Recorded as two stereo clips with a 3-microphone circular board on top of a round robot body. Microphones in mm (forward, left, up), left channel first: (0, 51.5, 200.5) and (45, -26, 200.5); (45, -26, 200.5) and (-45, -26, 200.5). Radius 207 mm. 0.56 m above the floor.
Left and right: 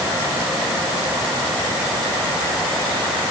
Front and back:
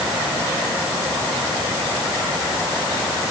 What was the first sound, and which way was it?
Only background noise.